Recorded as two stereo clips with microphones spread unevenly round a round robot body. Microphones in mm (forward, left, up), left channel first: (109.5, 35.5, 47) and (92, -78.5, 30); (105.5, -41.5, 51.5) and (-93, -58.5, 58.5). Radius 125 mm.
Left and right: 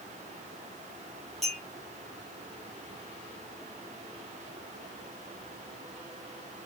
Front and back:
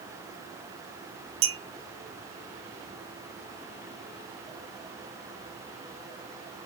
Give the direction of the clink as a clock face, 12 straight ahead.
6 o'clock.